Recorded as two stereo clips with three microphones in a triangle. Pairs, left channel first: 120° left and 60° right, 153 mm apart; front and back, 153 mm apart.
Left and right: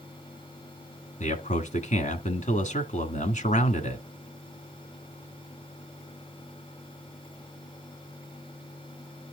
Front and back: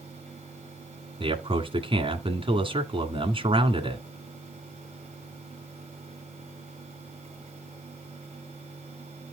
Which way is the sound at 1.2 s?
135° left.